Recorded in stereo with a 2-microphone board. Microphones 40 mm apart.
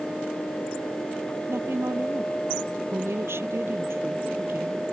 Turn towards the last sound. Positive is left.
turn(degrees=-75)  # may be behind; listen again after turning